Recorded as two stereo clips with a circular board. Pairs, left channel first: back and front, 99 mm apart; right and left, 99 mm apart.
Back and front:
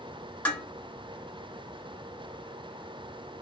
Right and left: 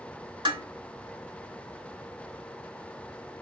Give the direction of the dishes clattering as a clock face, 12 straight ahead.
8 o'clock.